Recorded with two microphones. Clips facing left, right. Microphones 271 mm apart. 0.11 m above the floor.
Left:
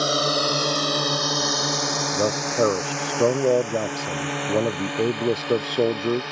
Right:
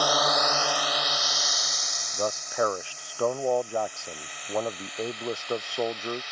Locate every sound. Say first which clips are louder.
0.0 s a drone: left 3 dB; 25° left (ahead or behind); by 6.3 s 65° left (ahead or behind)
2.1 s a man speaking: left 6 dB; 45° left (ahead or behind)